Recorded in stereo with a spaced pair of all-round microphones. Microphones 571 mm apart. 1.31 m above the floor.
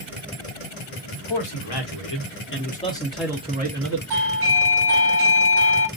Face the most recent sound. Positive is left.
turn(degrees=-40)  # may be behind; listen again after turning